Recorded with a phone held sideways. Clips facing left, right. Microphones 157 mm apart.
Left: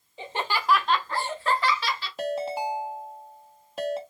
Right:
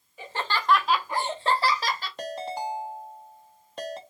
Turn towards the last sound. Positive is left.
turn(degrees=5)  # may be behind; listen again after turning